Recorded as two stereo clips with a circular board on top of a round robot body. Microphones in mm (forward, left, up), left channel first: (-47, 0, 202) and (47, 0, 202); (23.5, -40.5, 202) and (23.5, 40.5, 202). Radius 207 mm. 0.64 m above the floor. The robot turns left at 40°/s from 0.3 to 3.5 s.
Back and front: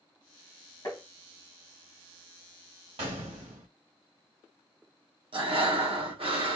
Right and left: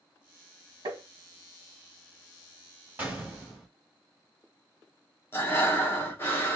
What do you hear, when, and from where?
0.8 s tapping: 125° left, 1.8 m; by 1.0 s 115° left, 1.8 m
3.0 s a gunshot: 20° left, 1.0 m; by 3.7 s straight ahead, 1.0 m
5.3 s breathing: 25° right, 1.0 m